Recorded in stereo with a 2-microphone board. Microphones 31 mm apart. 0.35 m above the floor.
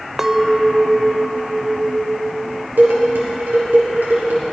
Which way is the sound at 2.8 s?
75° right (ahead or behind).